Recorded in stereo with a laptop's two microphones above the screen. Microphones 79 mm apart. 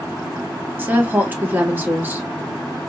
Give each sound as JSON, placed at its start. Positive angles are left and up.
{"t": 0.8, "sound": "a woman speaking", "side_deg": -20, "distance_m": 1.5}